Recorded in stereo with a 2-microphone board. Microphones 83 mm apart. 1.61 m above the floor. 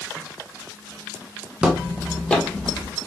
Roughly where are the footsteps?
Centre.